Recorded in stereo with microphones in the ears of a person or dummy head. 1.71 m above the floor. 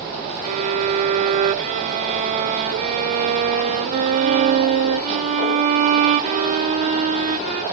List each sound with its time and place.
0.4 s a violin: 35° right (ahead or behind), 0.5 m